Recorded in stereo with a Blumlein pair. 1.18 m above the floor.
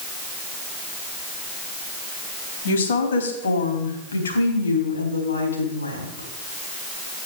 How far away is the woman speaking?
About 2.5 m.